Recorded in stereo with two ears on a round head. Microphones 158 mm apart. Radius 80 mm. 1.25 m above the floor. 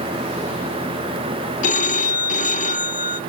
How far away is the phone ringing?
About 0.7 m.